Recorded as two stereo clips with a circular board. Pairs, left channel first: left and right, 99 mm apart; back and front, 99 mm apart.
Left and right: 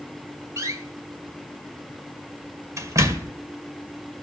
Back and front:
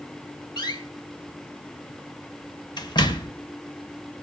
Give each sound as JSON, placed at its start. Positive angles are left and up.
{"t": 0.6, "sound": "a door slam", "azimuth_deg": -145, "distance_m": 1.8}